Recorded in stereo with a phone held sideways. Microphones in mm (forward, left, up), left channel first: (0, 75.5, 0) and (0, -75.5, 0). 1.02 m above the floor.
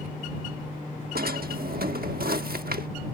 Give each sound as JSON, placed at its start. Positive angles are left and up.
{"t": 1.1, "sound": "a drawer", "side_deg": -80}